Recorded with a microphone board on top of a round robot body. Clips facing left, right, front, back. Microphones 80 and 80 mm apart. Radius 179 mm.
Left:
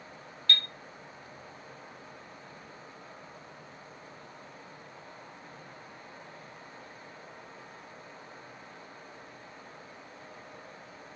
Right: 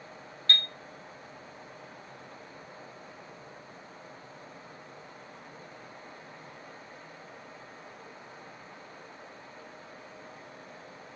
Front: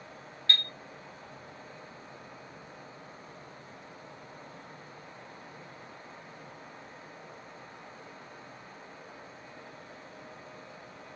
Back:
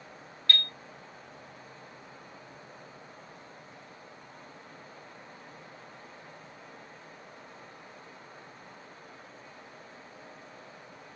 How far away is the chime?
About 1.0 m.